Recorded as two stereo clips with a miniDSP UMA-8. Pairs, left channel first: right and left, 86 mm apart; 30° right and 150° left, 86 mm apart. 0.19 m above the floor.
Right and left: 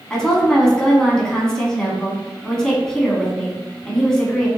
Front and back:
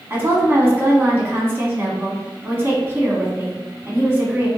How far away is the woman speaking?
About 1.3 m.